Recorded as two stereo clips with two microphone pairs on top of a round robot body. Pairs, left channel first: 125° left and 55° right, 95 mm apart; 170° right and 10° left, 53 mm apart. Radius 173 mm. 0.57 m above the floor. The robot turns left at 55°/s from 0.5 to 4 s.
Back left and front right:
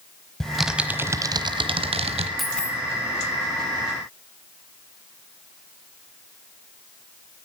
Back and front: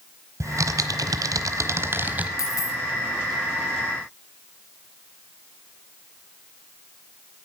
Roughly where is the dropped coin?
Behind right.